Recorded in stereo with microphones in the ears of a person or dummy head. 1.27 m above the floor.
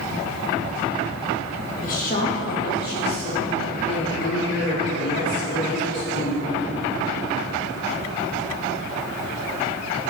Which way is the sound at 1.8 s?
50° left (ahead or behind).